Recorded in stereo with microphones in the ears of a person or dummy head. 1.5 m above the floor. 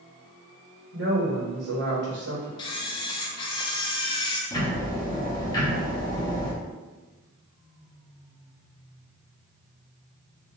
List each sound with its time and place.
0.9 s a woman speaking: 60° right (ahead or behind), 1.2 m
2.6 s a camera shutter: 25° left (ahead or behind), 0.5 m
4.5 s ticking: 20° left (ahead or behind), 1.0 m